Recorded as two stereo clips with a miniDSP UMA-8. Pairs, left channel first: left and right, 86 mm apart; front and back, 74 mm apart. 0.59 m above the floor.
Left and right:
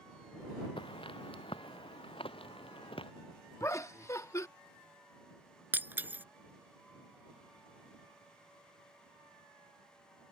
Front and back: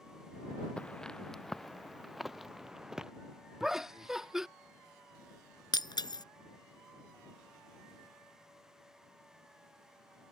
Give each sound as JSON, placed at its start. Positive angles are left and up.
{"t": 0.8, "sound": "footsteps", "azimuth_deg": 75}
{"t": 3.6, "sound": "laughter", "azimuth_deg": 105}
{"t": 5.7, "sound": "breaking glass", "azimuth_deg": -20}